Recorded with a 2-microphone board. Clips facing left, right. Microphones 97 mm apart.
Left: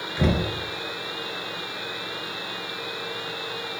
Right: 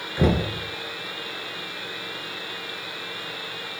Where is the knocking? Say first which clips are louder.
Right 2 dB; 15° right (ahead or behind), 1.5 m.